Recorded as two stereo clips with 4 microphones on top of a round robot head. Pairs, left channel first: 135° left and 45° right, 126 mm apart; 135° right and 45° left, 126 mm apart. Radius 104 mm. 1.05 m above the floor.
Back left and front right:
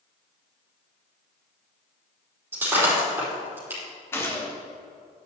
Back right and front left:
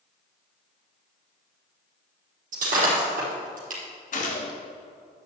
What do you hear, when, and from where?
2.5 s breaking glass: 30° left, 4.5 m
4.1 s a gunshot: 155° right, 1.8 m